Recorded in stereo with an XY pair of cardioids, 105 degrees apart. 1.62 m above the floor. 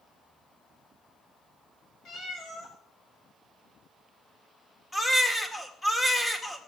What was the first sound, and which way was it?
A cat meowing, 65° left.